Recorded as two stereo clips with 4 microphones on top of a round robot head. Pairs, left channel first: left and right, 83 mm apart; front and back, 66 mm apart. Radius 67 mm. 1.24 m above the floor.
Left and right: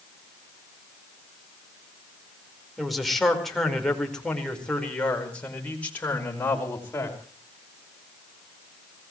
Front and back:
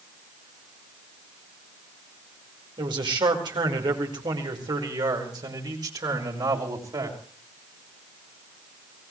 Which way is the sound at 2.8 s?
Straight behind.